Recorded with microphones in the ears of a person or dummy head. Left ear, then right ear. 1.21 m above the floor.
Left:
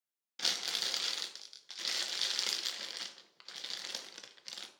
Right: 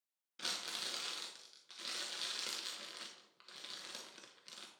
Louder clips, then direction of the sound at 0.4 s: Left 7 dB; 30° left (ahead or behind).